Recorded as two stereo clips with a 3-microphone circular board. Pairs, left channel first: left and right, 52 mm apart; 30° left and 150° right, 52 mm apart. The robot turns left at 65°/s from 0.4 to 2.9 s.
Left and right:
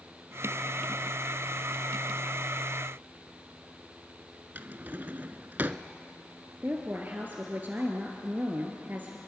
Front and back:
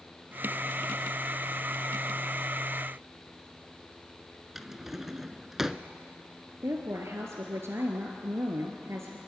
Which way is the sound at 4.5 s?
70° right.